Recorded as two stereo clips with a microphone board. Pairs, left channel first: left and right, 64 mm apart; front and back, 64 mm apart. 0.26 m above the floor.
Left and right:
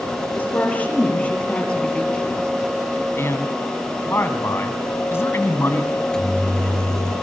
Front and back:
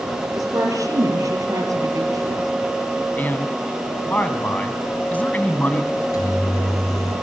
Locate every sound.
0.3 s a woman speaking: 155° left, 6.5 m; by 2.5 s 165° left, 5.5 m
3.2 s a man speaking: 55° left, 2 m
5.9 s a microwave: 10° left, 3 m